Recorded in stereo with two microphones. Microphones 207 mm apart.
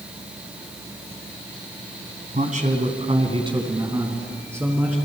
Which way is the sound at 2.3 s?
40° right (ahead or behind).